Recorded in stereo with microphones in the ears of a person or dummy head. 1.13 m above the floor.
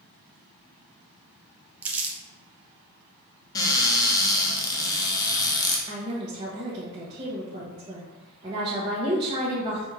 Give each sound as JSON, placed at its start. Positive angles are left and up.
{"t": 1.8, "sound": "crumpling", "side_deg": -10, "distance_m": 0.8}
{"t": 3.5, "sound": "a cupboard door", "side_deg": 20, "distance_m": 0.9}
{"t": 5.9, "sound": "a woman speaking", "side_deg": -25, "distance_m": 0.9}